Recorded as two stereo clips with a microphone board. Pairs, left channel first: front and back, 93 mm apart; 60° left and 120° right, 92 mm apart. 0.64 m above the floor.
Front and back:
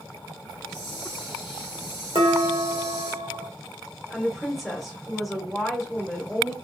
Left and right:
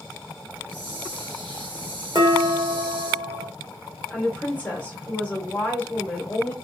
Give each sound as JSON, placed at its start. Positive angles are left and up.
{"t": 0.5, "sound": "a hiss", "azimuth_deg": -100, "distance_m": 1.9}
{"t": 2.1, "sound": "dishes clattering", "azimuth_deg": -155, "distance_m": 1.2}
{"t": 4.1, "sound": "a woman speaking", "azimuth_deg": 90, "distance_m": 1.1}